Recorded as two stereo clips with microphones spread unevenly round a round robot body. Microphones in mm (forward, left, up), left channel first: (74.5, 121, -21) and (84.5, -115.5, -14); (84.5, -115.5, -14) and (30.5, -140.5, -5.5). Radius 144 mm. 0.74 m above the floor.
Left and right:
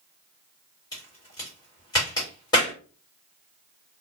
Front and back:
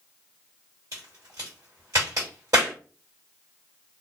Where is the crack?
165° left, 1.3 m.